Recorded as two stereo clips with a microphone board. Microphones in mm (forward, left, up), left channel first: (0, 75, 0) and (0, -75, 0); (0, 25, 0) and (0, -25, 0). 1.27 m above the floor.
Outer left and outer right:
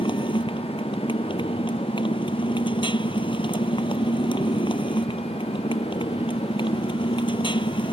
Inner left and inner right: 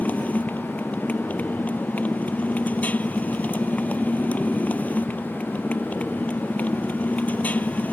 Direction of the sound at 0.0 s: 35° left (ahead or behind).